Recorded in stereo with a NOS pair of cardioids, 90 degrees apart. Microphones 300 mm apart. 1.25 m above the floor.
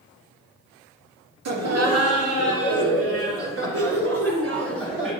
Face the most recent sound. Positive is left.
turn(degrees=-45)